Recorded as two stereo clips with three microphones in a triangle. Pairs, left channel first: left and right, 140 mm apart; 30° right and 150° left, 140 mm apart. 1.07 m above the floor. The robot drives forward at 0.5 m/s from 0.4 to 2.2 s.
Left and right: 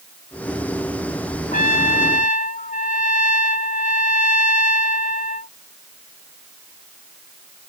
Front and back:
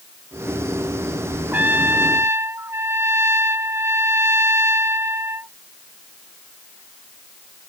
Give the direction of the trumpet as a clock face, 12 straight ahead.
10 o'clock.